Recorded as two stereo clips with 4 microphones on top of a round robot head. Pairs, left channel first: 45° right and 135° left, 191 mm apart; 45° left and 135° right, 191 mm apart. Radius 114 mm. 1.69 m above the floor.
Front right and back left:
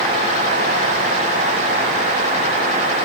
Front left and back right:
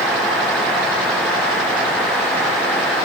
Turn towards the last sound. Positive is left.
No sound to turn to.